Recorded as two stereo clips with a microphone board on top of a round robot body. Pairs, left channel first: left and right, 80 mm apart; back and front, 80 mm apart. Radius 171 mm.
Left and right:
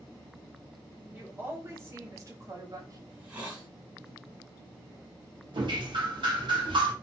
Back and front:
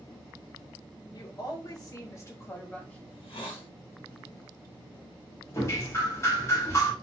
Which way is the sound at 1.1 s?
155° right.